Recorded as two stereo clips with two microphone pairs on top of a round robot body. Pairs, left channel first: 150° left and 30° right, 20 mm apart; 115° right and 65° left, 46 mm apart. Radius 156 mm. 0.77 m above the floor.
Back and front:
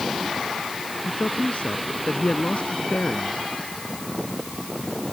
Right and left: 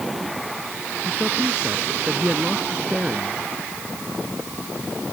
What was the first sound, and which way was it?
A man speaking, 135° left.